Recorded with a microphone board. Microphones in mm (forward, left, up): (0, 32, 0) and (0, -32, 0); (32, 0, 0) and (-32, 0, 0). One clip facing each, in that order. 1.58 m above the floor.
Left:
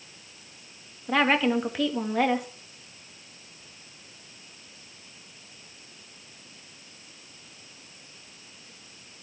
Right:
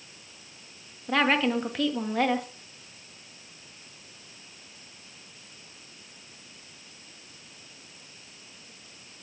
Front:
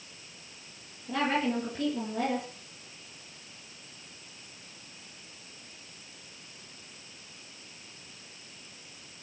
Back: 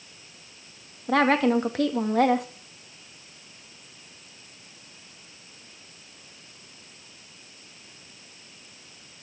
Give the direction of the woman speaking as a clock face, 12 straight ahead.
6 o'clock.